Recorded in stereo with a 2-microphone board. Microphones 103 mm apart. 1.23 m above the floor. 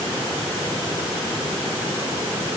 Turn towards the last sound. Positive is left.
No sound to turn to.